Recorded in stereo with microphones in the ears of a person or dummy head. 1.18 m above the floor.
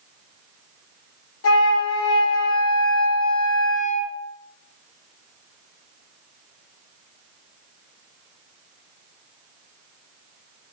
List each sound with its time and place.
1.4 s a flute: 70° left (ahead or behind), 0.6 m